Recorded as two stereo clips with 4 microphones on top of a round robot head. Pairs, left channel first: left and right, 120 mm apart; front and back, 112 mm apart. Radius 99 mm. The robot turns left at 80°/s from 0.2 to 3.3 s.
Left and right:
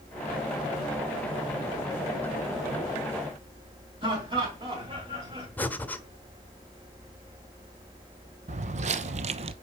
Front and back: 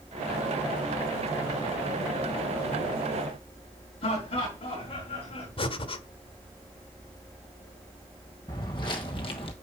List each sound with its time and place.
4.0 s laughter: 40° right, 5 m
5.6 s breathing: 15° left, 1.4 m
8.5 s footsteps: 65° right, 1.1 m; by 9.5 s 60° right, 0.6 m